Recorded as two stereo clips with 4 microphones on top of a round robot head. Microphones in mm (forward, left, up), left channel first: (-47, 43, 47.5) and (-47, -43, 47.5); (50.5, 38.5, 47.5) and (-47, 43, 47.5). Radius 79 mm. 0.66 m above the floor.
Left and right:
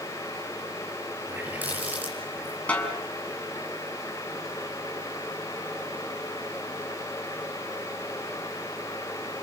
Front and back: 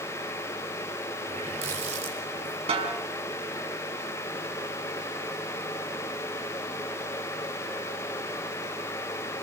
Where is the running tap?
160° right, 8.5 m.